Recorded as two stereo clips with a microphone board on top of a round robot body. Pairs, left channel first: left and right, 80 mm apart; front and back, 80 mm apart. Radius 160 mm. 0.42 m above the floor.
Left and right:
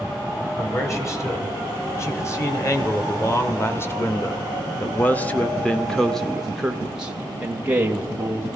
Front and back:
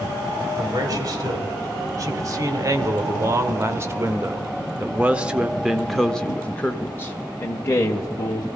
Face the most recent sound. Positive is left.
turn(degrees=-30)